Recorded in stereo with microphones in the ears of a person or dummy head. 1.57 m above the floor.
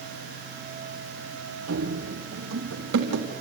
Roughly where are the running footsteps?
Right.